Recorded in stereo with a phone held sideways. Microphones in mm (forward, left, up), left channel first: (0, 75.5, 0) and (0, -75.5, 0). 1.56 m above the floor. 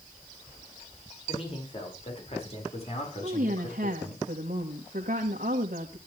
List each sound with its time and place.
1.3 s a man speaking: 40° left (ahead or behind), 7 m; by 4.2 s 55° left (ahead or behind), 5.5 m
3.2 s a woman speaking: 80° right, 2 m